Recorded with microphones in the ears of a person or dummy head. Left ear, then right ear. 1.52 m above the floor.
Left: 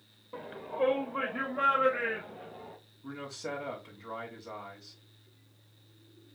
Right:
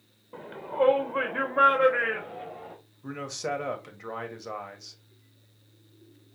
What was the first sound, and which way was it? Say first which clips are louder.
A shout: right 7 dB; 10° left (ahead or behind).